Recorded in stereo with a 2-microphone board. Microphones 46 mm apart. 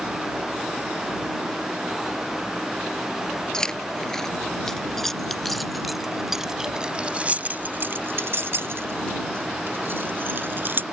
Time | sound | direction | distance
3.5 | keys jangling | 15° left (ahead or behind) | ?